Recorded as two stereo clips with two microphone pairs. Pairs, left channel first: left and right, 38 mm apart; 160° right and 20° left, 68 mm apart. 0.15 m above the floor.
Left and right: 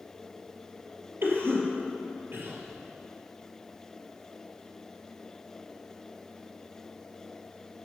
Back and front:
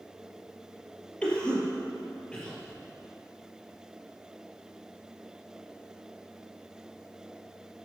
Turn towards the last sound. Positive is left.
turn(degrees=-90)